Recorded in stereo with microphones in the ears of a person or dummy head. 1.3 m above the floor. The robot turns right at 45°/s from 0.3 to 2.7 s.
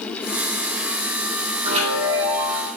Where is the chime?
40° right, 5 m; by 2.7 s 5° left, 5 m.